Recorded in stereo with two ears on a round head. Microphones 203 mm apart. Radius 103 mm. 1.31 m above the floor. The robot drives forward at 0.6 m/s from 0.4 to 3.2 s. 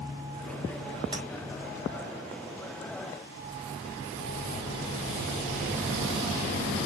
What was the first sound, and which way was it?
Tapping, 25° right (ahead or behind).